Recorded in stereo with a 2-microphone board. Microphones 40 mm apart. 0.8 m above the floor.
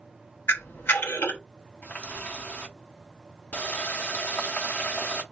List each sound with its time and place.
0.5 s a camera shutter: 65° left (ahead or behind), 0.7 m
1.8 s a running tap: 45° left (ahead or behind), 0.7 m